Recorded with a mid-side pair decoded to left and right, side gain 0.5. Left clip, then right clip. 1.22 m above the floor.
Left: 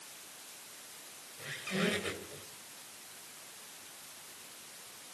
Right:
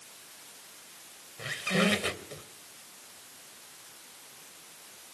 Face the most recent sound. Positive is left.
turn(degrees=-55)